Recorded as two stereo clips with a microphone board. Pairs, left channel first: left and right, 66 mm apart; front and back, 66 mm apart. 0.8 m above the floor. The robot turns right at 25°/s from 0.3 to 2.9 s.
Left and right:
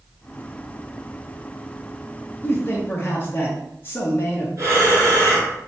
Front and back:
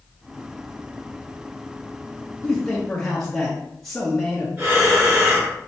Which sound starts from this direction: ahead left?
A man speaking, at 2.4 s.